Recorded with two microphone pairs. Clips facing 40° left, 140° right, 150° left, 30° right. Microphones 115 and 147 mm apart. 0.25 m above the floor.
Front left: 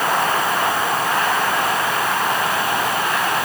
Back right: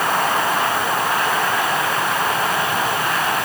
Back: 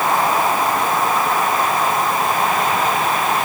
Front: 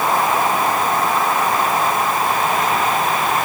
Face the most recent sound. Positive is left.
No sound to turn to.